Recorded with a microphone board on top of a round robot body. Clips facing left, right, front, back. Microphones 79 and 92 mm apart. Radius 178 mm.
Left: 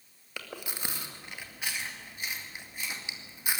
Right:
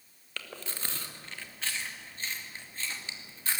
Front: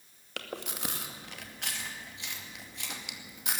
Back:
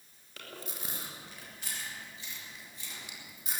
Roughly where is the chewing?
Ahead.